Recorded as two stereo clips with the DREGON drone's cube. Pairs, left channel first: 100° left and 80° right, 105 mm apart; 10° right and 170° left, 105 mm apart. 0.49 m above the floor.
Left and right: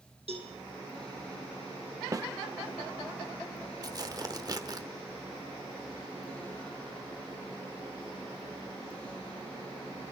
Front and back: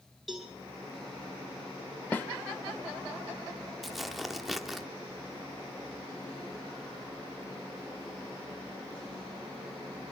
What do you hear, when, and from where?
0.3 s a cowbell: 100° right, 4 m
2.1 s a snare drum: 70° right, 0.6 m
3.8 s tearing paper: 105° right, 0.9 m